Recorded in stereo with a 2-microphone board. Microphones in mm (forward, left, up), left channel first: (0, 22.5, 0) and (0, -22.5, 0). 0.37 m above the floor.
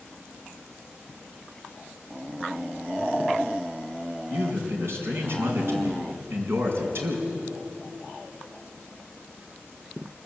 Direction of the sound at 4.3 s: 60° right (ahead or behind).